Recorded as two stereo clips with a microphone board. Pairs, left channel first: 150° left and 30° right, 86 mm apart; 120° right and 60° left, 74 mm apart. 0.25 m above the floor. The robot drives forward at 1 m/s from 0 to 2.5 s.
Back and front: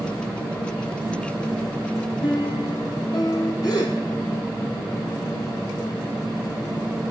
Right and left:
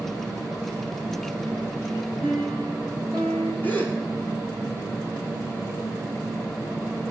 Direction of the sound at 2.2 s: 160° left.